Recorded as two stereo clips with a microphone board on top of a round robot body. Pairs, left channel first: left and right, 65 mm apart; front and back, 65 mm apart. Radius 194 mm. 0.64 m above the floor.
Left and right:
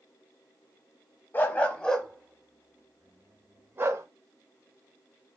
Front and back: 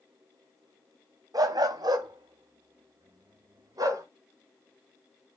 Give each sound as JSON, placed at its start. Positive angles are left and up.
{"t": 1.3, "sound": "a dog barking", "azimuth_deg": 150, "distance_m": 1.1}